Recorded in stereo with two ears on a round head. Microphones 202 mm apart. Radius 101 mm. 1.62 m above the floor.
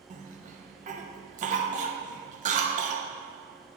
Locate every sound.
0.1 s a cough: 35° right (ahead or behind), 1.0 m